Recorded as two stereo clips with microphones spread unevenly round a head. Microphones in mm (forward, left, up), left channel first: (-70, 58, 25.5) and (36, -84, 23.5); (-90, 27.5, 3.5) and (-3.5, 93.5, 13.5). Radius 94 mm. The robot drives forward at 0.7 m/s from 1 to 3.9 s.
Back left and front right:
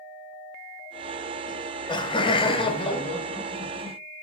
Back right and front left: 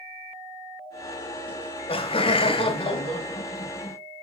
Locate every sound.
1.5 s laughter: 170° right, 1.4 m; by 4.0 s 175° right, 3 m